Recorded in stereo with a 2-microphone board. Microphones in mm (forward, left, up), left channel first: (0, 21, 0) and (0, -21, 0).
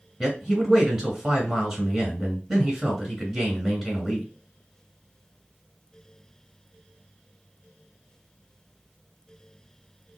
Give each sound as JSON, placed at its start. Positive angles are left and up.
{"t": 0.2, "sound": "a man speaking", "side_deg": -15, "distance_m": 1.6}